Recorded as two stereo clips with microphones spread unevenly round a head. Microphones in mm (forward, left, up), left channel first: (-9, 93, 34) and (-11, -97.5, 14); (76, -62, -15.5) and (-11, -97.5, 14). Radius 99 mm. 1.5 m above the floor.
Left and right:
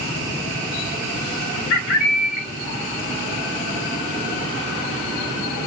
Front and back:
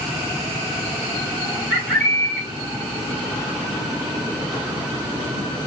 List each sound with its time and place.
1.7 s a bird: 100° left, 2 m